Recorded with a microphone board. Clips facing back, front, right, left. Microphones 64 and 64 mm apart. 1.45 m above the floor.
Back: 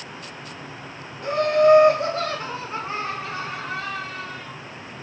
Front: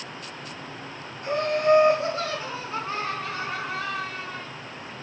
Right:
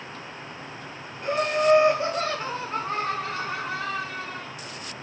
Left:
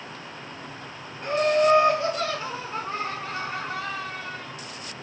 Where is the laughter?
175° right, 1.0 m; by 4.5 s 75° right, 1.2 m.